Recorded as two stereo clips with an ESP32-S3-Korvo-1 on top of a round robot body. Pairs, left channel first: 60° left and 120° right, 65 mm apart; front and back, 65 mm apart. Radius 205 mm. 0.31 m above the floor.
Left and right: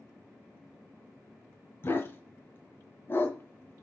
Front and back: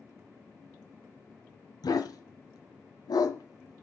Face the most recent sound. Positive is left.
turn(degrees=5)